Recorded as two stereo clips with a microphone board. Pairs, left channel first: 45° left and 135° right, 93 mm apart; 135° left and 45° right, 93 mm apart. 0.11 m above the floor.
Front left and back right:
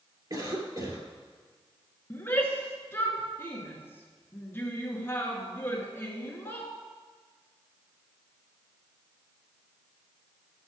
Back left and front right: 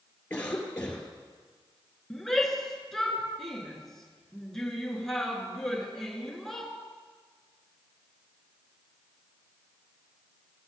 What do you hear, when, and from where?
0.3 s a cough: 155° right, 2.5 m
2.1 s a shout: 55° left, 1.8 m